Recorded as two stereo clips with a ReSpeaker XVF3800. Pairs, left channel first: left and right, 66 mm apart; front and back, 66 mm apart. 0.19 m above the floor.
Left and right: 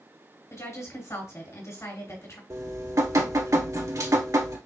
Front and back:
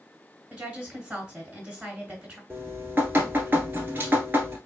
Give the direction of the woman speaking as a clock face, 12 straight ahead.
8 o'clock.